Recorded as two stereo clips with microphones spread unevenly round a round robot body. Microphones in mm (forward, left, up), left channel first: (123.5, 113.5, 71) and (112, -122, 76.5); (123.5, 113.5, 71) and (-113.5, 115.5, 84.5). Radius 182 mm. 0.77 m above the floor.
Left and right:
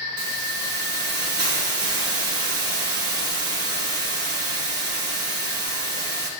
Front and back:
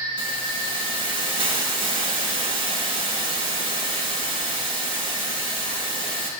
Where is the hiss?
75° right, 3.5 m.